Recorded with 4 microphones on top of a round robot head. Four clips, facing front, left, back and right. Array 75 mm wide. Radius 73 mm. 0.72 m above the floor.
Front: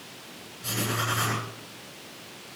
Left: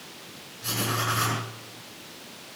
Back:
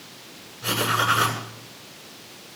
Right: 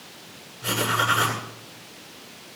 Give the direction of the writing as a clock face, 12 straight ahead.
5 o'clock.